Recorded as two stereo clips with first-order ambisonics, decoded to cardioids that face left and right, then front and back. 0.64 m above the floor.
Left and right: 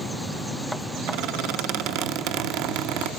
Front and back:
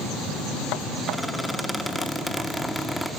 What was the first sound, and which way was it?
A squeak, 90° right.